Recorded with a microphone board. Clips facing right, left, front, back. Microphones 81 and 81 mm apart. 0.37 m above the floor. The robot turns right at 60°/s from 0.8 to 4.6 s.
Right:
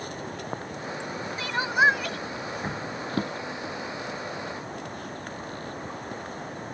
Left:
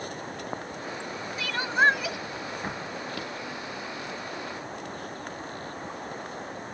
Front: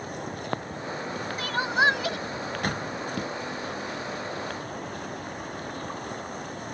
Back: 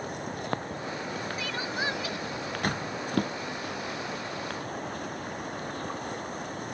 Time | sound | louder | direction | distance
1.4 | crying | right 1 dB, front 11 dB | 35° right | ?
3.1 | a drawer | right 5 dB, back 1 dB | 145° right | ?